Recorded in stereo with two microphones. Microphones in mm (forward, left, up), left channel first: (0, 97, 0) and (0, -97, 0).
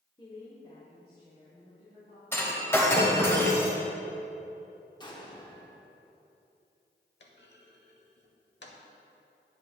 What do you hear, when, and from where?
0.2 s a woman speaking: 20° left (ahead or behind), 1.0 m; by 2.2 s 60° left (ahead or behind), 3.5 m
2.3 s breaking glass: 15° left (ahead or behind), 1.5 m
5.0 s an explosion: 20° left (ahead or behind), 0.9 m
7.2 s a clunk: 65° left (ahead or behind), 0.9 m